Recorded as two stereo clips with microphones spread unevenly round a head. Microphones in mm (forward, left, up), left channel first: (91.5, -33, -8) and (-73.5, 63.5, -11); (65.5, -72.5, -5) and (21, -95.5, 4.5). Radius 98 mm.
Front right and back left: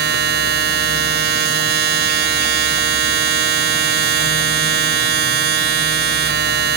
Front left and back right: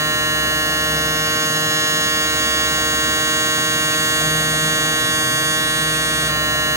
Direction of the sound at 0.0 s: 170° right.